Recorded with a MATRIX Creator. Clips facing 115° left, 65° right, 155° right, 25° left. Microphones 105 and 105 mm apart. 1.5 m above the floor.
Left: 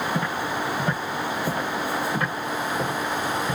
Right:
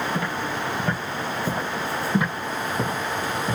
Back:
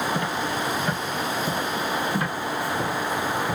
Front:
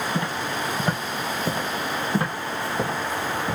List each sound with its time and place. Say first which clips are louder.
0.1 s footsteps: left 1 dB, back 1 dB; 45° left, 1.7 m; by 3.5 s 20° right, 2.5 m